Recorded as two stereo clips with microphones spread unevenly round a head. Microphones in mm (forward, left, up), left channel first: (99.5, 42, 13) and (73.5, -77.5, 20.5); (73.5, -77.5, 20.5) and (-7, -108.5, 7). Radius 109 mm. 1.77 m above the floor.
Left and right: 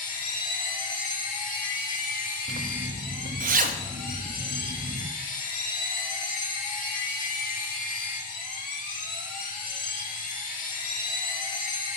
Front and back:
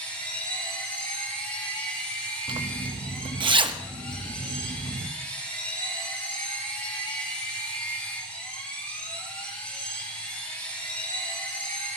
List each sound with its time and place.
0.0 s a machine running: 85° left, 2 m
2.5 s a zipper: 130° right, 0.9 m